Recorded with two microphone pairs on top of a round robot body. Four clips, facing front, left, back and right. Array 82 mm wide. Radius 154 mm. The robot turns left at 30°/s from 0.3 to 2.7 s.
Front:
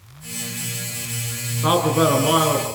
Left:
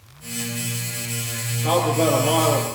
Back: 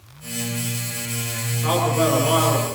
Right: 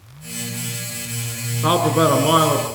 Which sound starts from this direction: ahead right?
A man speaking, at 1.6 s.